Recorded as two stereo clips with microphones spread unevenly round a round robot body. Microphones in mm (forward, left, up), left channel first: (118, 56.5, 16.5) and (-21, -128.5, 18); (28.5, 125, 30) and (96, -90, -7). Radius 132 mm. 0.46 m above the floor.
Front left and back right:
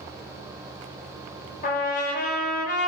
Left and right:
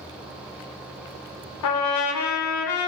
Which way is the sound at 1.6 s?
110° left.